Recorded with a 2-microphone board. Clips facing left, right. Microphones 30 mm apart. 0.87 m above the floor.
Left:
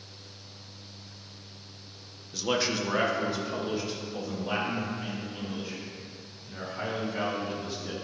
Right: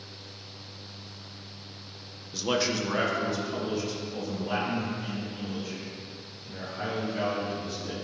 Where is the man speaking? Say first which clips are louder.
Right 1 dB; 5° right (ahead or behind), 0.7 m; by 7.9 s 25° left (ahead or behind), 5 m.